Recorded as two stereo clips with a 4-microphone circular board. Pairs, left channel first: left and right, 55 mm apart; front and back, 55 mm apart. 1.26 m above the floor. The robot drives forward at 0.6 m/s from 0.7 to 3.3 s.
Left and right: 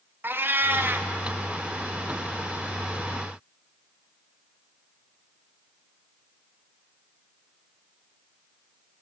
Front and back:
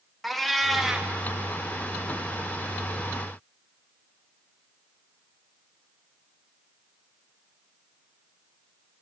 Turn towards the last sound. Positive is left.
turn(degrees=-165)